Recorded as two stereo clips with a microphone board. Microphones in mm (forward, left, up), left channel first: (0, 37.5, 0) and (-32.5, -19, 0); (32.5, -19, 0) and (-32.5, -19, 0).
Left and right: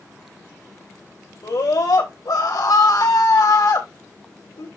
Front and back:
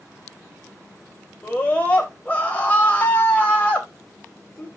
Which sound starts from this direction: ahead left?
A scream, at 1.4 s.